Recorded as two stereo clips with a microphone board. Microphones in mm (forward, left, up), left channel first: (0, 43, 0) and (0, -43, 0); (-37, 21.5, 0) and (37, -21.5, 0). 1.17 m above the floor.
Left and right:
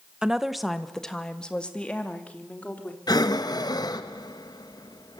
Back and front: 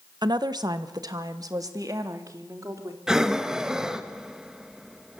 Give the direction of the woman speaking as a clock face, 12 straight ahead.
12 o'clock.